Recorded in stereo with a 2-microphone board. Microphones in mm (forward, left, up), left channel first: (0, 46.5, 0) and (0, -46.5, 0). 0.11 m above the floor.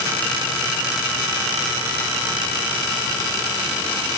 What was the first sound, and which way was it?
Only background noise.